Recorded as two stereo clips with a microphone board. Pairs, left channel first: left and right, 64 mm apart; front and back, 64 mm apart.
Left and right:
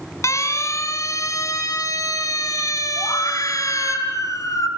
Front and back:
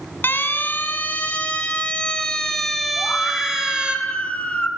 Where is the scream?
70° left, 3.5 m.